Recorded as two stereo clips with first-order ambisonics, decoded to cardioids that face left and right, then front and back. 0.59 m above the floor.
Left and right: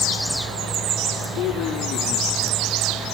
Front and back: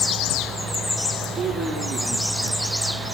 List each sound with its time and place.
1.4 s a man speaking: 115° left, 9 m